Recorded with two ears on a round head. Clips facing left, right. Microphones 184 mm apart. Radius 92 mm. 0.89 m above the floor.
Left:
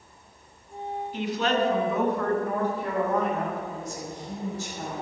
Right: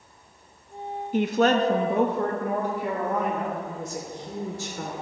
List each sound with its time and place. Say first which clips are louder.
1.1 s a woman speaking: right 6 dB; 40° right (ahead or behind), 1.1 m; by 3.6 s 5° right (ahead or behind), 3.5 m
3.7 s a woman speaking: right 1 dB; 60° right (ahead or behind), 2.5 m